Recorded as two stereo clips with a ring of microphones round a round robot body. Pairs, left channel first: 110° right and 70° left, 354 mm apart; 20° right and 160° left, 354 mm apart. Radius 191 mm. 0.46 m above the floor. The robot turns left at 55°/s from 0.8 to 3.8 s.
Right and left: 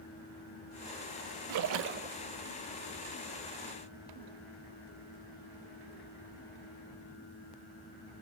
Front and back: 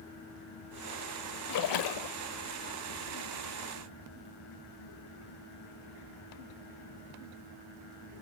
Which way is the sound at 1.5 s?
25° left.